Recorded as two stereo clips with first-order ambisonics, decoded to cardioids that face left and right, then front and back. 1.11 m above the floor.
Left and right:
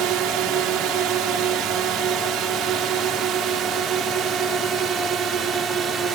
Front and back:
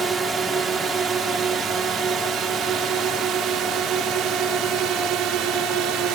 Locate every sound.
0.0 s a drone: 120° right; by 6.2 s 145° right